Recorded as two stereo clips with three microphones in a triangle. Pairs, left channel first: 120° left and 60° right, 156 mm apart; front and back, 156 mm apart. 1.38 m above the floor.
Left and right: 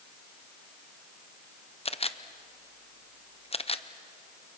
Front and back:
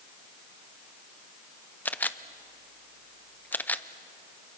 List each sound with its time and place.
1.9 s a camera shutter: 80° left, 0.7 m